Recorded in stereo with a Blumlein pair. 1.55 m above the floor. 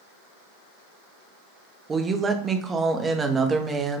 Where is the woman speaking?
20° right, 0.5 m.